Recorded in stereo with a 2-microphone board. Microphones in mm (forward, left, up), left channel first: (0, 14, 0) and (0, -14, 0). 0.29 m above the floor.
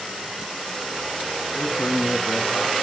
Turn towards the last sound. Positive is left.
turn(degrees=55)  # may be behind; listen again after turning